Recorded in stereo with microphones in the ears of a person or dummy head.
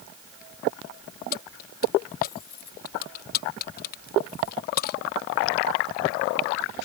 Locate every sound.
1.3 s keys jangling: 65° left (ahead or behind)